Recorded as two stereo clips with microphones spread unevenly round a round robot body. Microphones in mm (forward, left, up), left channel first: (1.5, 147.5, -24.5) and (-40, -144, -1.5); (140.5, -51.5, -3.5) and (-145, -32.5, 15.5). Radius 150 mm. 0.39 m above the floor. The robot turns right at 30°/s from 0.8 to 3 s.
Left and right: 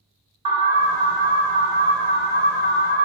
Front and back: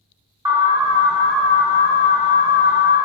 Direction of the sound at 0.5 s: 110° right.